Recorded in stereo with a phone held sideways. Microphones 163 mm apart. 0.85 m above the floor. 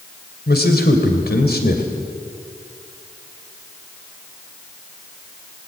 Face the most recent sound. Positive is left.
turn(degrees=75)  # may be behind; listen again after turning